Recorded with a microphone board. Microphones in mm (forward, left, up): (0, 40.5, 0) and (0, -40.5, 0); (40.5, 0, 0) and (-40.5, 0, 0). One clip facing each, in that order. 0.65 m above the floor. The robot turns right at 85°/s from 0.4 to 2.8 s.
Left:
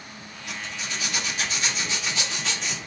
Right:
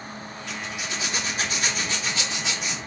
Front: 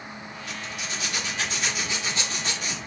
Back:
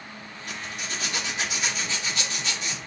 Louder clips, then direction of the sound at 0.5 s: Right 1 dB, back 1 dB; 170° left.